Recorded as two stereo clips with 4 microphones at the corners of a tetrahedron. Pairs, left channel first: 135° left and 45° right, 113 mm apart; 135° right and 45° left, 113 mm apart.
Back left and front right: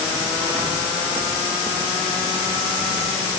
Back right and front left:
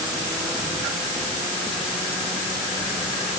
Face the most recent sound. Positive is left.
No sound to turn to.